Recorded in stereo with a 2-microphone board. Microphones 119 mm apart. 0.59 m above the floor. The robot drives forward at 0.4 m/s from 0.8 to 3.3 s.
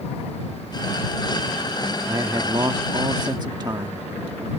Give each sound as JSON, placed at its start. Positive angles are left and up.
{"t": 2.1, "sound": "a man speaking", "side_deg": -30}